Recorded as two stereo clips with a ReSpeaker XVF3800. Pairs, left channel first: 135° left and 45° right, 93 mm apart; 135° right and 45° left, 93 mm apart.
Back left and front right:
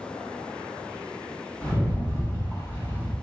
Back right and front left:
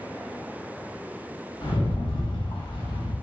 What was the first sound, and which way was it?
A rattle, 165° right.